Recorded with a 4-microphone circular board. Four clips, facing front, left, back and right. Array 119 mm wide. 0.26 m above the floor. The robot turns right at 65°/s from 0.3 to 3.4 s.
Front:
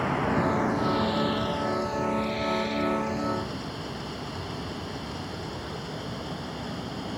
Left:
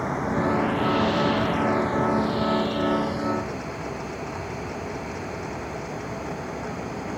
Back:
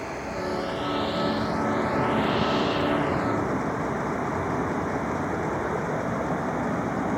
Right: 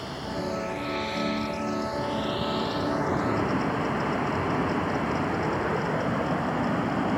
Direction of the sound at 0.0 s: 35° left.